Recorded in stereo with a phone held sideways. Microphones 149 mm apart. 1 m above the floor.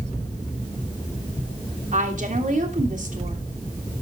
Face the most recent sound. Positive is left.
turn(degrees=-65)  # may be behind; listen again after turning